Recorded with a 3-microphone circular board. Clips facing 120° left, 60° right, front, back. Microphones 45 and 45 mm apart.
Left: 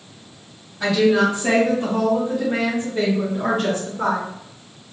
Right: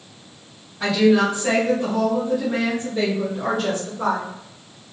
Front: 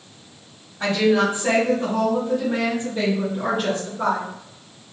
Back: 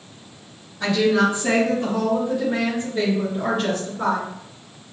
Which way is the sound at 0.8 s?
25° left.